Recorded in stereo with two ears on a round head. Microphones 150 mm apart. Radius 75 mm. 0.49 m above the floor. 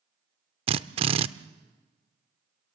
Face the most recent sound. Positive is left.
turn(degrees=-35)  # may be behind; listen again after turning